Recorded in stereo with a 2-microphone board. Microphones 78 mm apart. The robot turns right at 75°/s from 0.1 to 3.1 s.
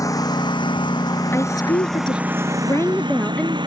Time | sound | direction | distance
0.0 | a lawn mower | 50° left (ahead or behind) | ?
1.3 | a woman speaking | 35° left | ?